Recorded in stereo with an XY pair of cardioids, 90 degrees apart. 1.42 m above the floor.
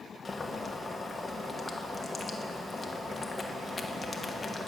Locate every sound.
0.2 s boiling: 30° left, 1.2 m